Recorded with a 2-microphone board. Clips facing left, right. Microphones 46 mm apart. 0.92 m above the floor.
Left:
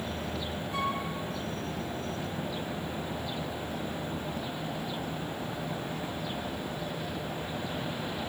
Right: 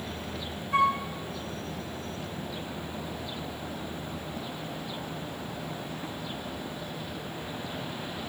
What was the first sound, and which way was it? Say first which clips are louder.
A flute: right 8 dB; 80° right.